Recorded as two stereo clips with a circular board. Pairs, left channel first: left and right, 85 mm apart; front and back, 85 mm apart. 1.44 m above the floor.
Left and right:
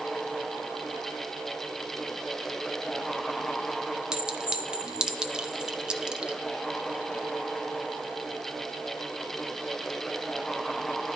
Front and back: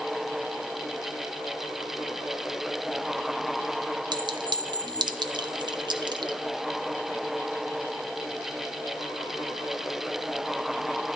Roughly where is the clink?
Behind.